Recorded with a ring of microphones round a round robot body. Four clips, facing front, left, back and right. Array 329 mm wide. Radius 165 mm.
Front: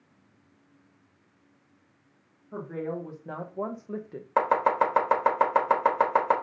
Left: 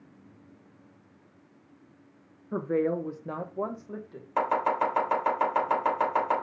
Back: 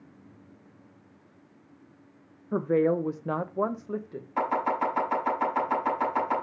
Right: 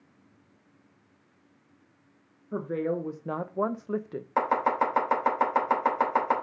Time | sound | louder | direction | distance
2.5 | a woman speaking | left 2 dB, back 10 dB | 165° left | 1.0 m
4.4 | chopping | right 1 dB, front 4 dB | 15° right | 3.5 m